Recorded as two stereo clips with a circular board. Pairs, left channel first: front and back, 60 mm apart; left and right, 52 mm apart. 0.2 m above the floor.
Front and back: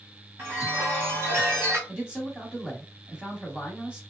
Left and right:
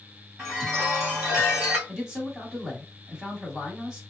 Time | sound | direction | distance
0.4 | a chime | 155° right | 1.9 m
1.9 | a man speaking | 140° right | 1.2 m